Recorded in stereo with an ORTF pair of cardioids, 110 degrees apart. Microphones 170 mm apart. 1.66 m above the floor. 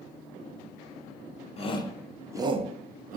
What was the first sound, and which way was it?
A shout, 40° left.